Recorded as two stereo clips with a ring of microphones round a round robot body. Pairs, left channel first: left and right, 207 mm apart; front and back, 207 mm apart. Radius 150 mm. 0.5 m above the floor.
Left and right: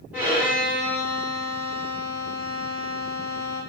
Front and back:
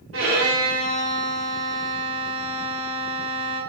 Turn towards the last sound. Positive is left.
turn(degrees=-175)